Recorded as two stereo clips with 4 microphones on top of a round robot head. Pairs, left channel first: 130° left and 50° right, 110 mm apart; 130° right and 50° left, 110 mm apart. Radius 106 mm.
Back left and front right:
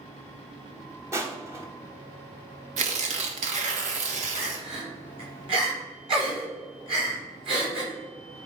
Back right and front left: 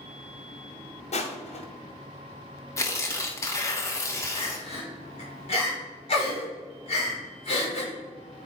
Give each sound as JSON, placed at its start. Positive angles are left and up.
{"t": 1.1, "sound": "crushing", "azimuth_deg": -115, "distance_m": 1.3}
{"t": 2.8, "sound": "tearing paper", "azimuth_deg": -65, "distance_m": 1.2}
{"t": 4.3, "sound": "crying", "azimuth_deg": -90, "distance_m": 3.5}